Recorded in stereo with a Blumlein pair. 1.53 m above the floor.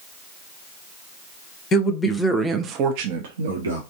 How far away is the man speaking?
About 0.8 m.